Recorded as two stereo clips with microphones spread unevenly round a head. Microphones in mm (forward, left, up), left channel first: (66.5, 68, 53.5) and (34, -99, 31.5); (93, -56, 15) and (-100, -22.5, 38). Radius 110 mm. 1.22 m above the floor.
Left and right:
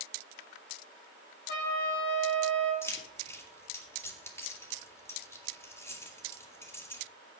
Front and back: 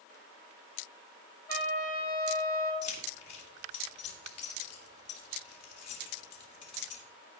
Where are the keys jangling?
5° left, 2 m.